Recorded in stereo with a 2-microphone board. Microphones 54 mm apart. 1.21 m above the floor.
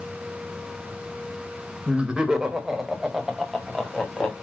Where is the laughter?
20° right (ahead or behind), 1.8 m; by 4.4 s 10° left (ahead or behind), 2.5 m.